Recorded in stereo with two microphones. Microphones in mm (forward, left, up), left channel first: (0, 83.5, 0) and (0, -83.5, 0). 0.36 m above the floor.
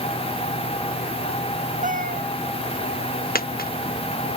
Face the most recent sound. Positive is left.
turn(degrees=65)  # may be behind; listen again after turning